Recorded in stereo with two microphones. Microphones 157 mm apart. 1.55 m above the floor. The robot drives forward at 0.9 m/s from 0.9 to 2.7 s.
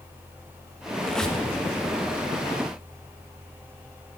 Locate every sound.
1.0 s a squeak: 5° left (ahead or behind), 1.1 m